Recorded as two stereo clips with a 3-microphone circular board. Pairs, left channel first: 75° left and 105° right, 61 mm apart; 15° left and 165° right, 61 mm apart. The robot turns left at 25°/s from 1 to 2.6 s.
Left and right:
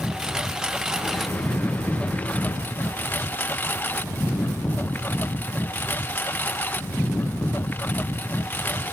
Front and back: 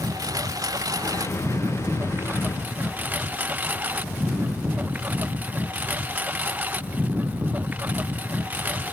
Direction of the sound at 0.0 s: 170° left.